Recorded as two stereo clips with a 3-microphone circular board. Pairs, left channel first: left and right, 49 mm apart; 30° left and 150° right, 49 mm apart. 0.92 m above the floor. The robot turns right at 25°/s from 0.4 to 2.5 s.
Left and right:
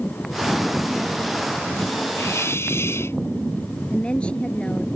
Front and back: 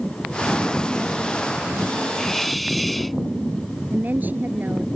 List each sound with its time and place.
2.2 s a hiss: 110° left; by 3.2 s 120° left
3.9 s a woman speaking: 160° left